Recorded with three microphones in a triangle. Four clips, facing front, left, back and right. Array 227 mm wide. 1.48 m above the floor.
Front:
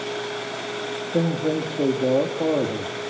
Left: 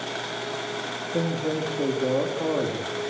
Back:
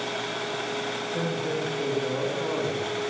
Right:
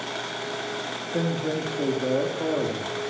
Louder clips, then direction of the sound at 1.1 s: Even, front 8 dB; 5° right.